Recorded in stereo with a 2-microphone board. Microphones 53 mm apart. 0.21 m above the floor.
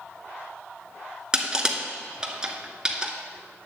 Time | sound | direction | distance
1.3 | crushing | 20° right (ahead or behind) | 0.8 m